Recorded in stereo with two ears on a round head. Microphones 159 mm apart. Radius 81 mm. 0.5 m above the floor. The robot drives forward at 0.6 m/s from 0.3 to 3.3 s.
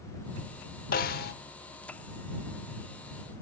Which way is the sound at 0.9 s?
50° left (ahead or behind).